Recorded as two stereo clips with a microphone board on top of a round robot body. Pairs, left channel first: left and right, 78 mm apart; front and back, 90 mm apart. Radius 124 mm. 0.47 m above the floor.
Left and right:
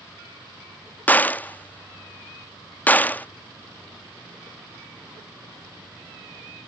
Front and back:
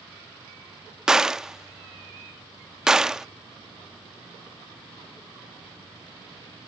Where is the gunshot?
105° left.